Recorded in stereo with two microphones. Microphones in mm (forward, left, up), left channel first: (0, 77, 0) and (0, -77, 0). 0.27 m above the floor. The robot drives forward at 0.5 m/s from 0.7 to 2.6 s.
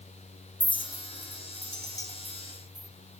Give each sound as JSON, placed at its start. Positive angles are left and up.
{"t": 0.6, "sound": "a clink", "side_deg": 30, "distance_m": 0.6}